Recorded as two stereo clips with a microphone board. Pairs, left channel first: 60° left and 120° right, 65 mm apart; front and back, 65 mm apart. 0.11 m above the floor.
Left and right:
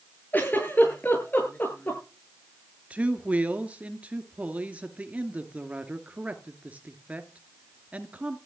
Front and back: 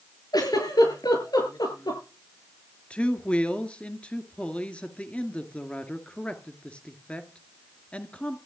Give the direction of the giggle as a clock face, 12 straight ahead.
12 o'clock.